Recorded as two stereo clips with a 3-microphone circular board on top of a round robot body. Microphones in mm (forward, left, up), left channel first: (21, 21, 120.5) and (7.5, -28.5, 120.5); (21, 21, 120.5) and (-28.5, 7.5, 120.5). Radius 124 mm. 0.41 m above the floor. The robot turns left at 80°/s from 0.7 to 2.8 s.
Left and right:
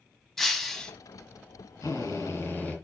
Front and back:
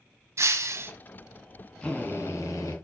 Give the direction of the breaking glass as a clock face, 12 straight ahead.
7 o'clock.